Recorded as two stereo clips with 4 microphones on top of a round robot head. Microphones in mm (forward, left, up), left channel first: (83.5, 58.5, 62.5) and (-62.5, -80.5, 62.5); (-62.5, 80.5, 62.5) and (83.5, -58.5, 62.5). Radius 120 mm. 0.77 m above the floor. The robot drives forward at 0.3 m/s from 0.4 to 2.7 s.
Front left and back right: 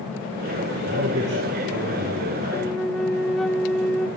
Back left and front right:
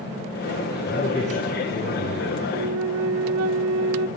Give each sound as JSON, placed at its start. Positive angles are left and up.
{"t": 0.8, "sound": "a man speaking", "azimuth_deg": -165, "distance_m": 2.0}
{"t": 2.5, "sound": "a flute", "azimuth_deg": -45, "distance_m": 0.6}